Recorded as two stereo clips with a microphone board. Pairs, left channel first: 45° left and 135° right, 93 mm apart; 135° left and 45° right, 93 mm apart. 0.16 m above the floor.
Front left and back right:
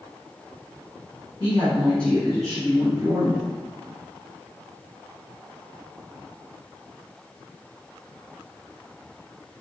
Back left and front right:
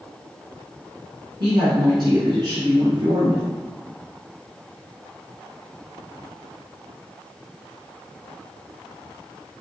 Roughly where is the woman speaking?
Ahead.